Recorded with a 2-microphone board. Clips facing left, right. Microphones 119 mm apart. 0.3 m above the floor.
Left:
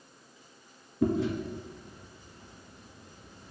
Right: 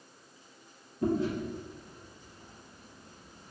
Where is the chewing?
80° left, 1.5 m.